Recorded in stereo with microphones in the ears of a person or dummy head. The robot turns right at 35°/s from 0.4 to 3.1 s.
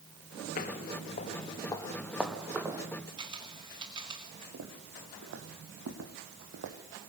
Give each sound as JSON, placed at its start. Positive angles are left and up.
{"t": 0.6, "sound": "footsteps", "side_deg": 35, "distance_m": 1.3}
{"t": 3.2, "sound": "a camera shutter", "side_deg": -20, "distance_m": 2.5}
{"t": 4.5, "sound": "footsteps", "side_deg": -75, "distance_m": 4.0}